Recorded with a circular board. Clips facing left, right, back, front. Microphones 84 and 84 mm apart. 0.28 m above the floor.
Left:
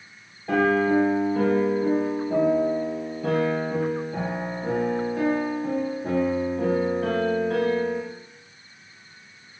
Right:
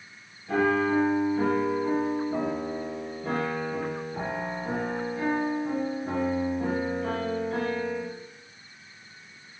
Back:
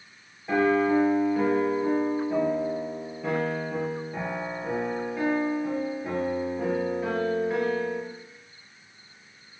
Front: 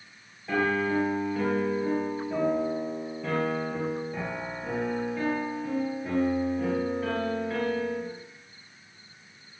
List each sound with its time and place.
0.5 s a piano: 100° left, 4.5 m